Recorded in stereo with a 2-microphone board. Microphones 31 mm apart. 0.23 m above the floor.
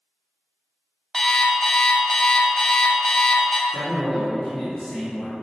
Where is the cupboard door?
I don't hear a cupboard door.